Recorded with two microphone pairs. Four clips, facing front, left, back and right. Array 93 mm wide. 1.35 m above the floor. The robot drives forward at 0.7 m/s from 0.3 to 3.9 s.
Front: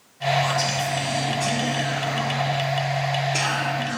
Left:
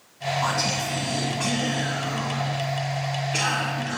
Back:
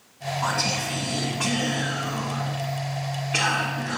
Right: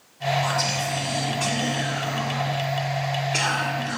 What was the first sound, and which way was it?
Whispering, 120° left.